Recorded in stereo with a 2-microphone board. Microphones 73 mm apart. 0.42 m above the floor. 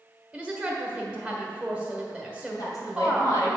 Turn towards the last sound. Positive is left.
turn(degrees=55)  # may be behind; listen again after turning